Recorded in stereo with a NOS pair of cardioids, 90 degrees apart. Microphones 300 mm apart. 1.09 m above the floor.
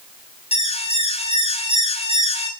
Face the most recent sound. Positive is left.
turn(degrees=20)